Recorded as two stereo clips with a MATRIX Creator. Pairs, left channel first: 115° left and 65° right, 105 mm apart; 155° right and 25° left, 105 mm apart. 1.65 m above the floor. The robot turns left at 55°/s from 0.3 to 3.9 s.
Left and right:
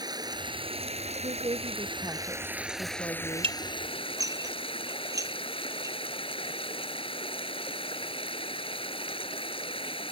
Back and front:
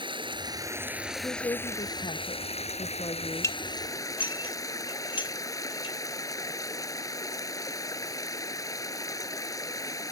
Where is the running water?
15° right; by 10.1 s 145° left.